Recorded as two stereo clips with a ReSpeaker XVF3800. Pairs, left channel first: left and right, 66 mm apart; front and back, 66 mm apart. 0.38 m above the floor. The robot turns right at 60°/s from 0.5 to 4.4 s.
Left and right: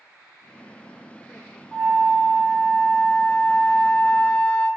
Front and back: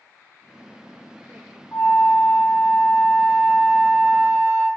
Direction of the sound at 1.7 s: 5° right.